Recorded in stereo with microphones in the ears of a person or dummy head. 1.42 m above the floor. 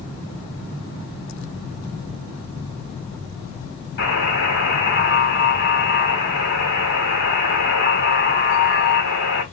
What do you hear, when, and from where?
4.0 s a buzzer: 50° left (ahead or behind), 1.7 m